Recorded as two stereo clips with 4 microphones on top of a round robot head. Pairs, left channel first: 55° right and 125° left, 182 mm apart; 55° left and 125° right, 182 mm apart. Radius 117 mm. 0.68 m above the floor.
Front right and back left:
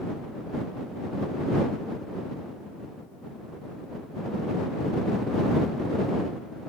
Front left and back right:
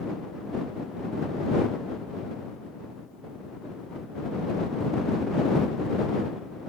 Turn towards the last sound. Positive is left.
No sound to turn to.